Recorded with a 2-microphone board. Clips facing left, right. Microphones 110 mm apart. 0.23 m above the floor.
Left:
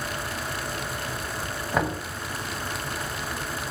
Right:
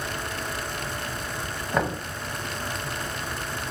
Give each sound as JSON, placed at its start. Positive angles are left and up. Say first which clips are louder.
{"t": 1.7, "sound": "knocking", "louder": "even", "side_deg": 0, "distance_m": 0.7}